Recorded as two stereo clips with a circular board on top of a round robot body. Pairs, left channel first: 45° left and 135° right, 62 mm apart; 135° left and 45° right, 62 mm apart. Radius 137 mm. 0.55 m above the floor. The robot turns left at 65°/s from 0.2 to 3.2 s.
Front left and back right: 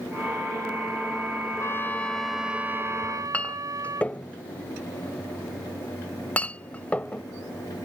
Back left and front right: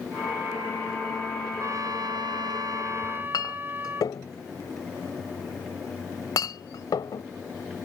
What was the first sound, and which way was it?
A trumpet, straight ahead.